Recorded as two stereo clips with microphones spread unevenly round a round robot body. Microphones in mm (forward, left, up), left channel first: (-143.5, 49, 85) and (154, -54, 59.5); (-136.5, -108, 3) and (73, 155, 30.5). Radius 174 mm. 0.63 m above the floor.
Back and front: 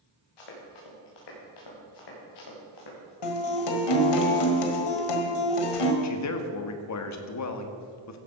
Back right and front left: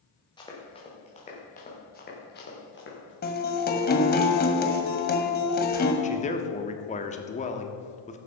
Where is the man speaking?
175° left, 1.3 m.